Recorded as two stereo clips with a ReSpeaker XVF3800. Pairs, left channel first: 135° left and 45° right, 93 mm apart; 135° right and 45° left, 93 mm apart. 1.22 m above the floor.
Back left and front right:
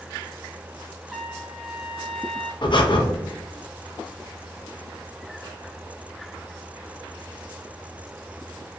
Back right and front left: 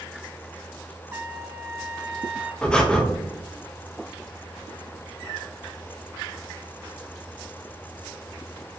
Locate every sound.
1.1 s a trumpet: 30° left, 0.6 m
2.6 s breathing: 150° left, 0.7 m